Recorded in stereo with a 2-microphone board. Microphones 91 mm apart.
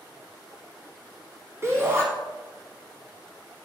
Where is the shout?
30° right (ahead or behind), 1.2 m.